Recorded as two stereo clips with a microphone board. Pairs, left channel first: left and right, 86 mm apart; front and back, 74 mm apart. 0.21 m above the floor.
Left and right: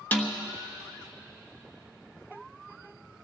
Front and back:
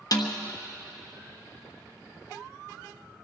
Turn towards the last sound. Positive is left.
turn(degrees=20)